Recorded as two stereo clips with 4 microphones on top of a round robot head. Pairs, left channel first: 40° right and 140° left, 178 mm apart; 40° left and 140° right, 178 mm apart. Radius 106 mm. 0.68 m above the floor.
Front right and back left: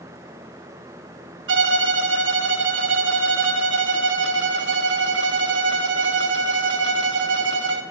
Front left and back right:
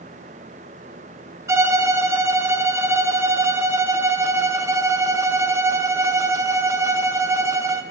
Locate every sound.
1.5 s a violin: 145° left, 0.9 m